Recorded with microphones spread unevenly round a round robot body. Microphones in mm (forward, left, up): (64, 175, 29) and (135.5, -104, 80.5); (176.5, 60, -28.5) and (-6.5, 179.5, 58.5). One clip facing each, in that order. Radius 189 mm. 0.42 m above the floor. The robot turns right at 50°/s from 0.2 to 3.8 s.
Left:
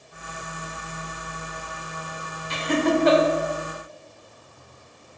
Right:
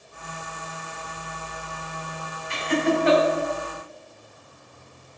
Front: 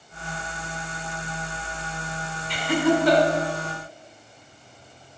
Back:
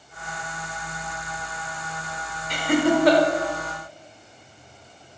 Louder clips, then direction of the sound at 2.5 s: Left 1 dB, back 1 dB; 95° left.